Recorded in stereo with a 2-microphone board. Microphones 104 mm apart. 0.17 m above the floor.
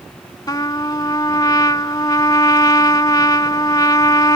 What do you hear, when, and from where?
0.5 s a trumpet: 40° left (ahead or behind)